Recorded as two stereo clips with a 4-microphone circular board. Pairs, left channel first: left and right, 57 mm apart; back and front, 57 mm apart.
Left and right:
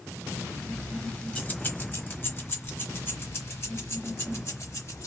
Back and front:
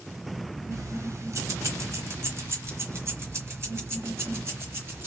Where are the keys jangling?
15° left, 1.0 m; by 5.1 s 50° left, 3 m.